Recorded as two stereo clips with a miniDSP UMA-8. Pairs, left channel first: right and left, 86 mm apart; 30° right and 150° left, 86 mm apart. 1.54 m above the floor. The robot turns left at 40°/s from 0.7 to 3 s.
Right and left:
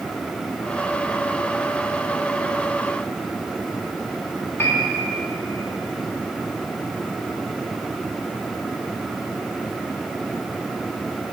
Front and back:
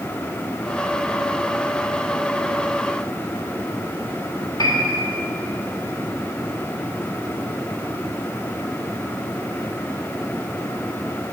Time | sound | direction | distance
4.6 | a piano | 35° right | 1.5 m